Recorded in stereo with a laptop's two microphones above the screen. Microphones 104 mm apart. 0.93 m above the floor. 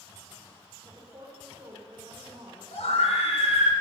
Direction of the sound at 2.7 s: 80° left.